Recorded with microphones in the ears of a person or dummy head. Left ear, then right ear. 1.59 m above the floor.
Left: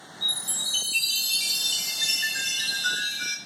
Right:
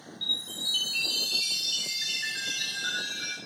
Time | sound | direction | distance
0.2 | a chime | 30° left (ahead or behind) | 4 m